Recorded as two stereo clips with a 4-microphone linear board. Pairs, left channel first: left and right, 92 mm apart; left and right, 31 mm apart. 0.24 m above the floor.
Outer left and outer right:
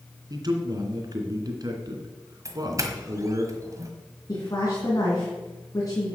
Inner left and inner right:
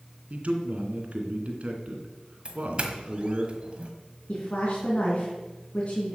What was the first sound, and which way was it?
A man speaking, 45° right (ahead or behind).